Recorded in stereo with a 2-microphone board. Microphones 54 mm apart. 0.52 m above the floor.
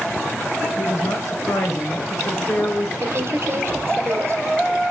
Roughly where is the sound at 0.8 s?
Left.